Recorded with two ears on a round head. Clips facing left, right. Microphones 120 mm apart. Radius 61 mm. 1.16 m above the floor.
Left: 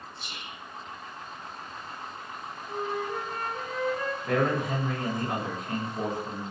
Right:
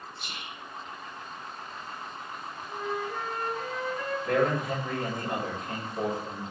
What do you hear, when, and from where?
0.2 s whispering: 55° right (ahead or behind), 1.0 m
2.7 s a flute: 40° left (ahead or behind), 1.9 m
4.2 s a man speaking: 5° left (ahead or behind), 2 m